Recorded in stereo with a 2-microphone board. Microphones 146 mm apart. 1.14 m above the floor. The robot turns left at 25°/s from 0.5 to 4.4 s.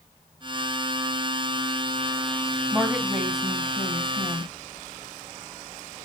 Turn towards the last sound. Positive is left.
turn(degrees=155)